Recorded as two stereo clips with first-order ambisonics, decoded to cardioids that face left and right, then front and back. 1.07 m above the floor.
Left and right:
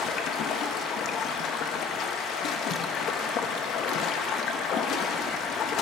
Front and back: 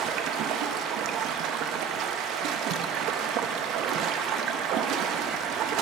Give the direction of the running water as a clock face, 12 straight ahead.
7 o'clock.